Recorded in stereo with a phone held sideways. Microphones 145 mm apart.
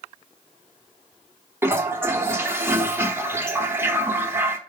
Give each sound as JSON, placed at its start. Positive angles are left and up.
{"t": 1.6, "sound": "a toilet flushing", "side_deg": -15, "distance_m": 1.1}